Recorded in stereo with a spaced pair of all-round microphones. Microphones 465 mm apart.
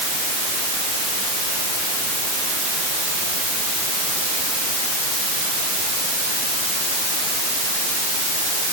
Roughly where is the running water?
I don't hear running water.